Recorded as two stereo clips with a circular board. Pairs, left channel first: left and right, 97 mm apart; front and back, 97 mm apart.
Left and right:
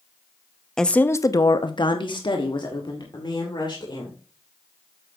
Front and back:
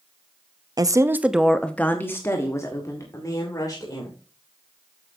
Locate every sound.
0.8 s a woman speaking: 170° left, 0.7 m; by 4.2 s 50° left, 3 m